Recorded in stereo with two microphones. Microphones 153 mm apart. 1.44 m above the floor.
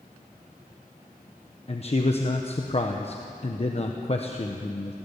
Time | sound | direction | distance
1.7 | a man speaking | 45° left (ahead or behind) | 1.2 m